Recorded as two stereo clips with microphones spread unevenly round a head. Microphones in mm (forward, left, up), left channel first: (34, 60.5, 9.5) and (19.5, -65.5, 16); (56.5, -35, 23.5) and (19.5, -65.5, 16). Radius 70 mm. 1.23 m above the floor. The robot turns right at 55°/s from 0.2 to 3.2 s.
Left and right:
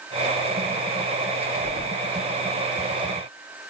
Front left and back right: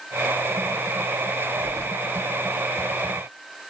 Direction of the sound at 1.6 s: 150° right.